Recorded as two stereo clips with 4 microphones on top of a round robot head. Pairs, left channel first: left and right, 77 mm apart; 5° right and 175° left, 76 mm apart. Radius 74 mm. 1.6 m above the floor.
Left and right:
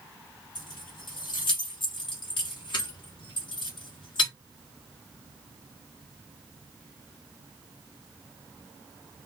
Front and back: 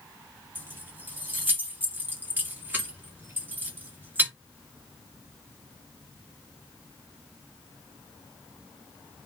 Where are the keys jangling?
110° left, 1.7 m.